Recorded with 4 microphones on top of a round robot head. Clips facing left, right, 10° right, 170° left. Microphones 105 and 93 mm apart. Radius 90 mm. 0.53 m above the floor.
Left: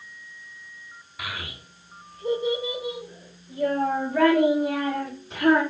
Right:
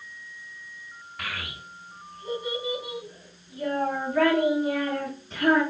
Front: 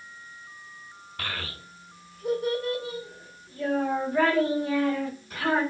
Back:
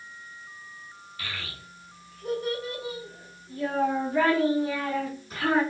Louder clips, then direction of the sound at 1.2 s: Left 1 dB, front 4 dB; 5° left.